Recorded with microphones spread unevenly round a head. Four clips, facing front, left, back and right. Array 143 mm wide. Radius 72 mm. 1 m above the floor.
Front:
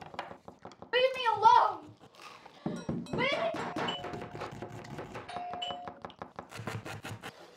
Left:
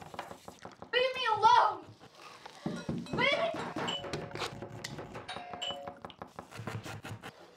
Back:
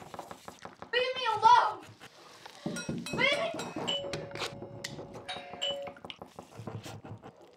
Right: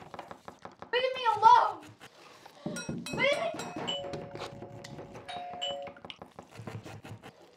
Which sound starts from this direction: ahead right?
A shout, at 0.9 s.